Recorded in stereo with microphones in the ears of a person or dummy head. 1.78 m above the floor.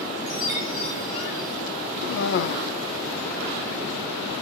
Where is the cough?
60° left (ahead or behind), 1.0 m.